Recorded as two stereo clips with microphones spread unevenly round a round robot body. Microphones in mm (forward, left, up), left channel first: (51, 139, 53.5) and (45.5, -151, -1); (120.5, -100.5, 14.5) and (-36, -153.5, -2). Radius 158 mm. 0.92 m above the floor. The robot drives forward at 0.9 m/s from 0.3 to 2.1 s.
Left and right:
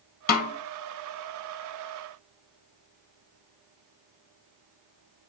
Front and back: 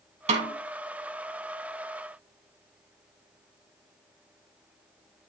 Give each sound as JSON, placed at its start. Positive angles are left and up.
{"t": 0.3, "sound": "a snare drum", "azimuth_deg": 150, "distance_m": 1.3}